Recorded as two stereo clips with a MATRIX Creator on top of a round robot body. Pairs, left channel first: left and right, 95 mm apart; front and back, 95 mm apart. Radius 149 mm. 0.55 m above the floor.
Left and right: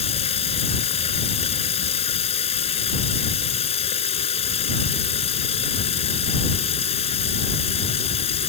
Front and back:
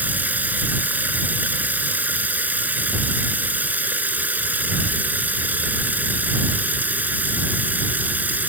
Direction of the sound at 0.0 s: 105° left.